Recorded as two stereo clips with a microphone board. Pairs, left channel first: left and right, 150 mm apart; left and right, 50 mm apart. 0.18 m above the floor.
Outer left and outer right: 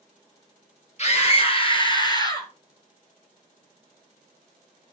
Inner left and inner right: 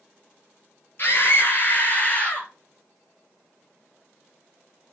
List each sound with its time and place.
1.0 s a scream: 45° left (ahead or behind), 4.5 m; by 2.5 s 20° left (ahead or behind), 4.5 m